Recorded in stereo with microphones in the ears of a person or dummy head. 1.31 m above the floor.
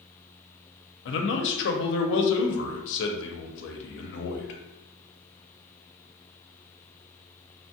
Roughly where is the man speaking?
Left.